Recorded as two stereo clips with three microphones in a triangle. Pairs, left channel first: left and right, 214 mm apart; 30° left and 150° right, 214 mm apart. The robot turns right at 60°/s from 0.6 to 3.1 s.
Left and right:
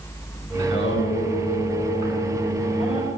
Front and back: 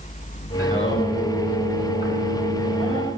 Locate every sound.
0.6 s singing: 75° left, 8.5 m; by 3.1 s 135° right, 8.5 m